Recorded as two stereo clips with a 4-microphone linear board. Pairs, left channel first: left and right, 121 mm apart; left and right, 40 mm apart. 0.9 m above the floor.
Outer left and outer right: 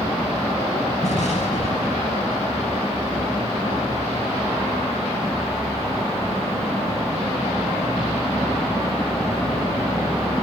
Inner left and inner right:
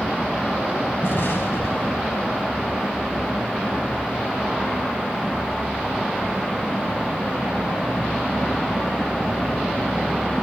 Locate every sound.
1.0 s an explosion: 70° left (ahead or behind), 5 m